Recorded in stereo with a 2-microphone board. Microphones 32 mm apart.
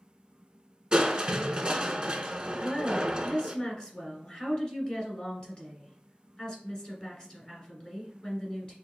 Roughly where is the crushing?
Right.